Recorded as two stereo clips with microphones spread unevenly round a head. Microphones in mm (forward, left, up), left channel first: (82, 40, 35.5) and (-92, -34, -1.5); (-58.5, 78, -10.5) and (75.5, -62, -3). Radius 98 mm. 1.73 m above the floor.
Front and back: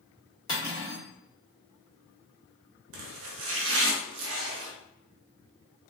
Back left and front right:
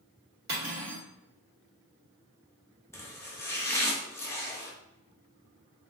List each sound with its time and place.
0.5 s cutlery clinking: 30° right, 1.6 m
2.9 s chopping: 150° right, 0.6 m